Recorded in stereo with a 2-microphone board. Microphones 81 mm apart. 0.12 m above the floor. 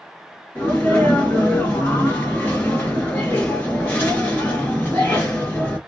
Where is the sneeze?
25° left (ahead or behind), 1.3 m.